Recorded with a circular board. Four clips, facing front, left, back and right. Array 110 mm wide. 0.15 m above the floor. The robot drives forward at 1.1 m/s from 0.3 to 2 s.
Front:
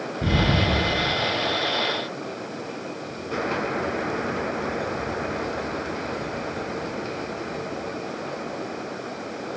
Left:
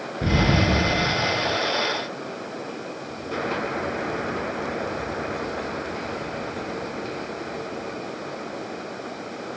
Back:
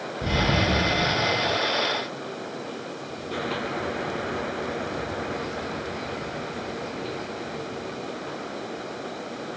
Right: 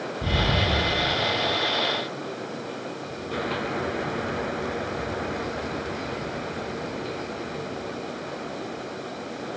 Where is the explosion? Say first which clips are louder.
Left 5 dB, front 1 dB; 60° left, 1.2 m; by 1.6 s 135° left, 1.5 m.